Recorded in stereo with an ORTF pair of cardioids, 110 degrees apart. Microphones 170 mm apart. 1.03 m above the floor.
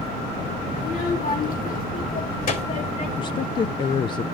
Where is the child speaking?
50° left, 2.5 m; by 3.1 s 55° left, 4.5 m.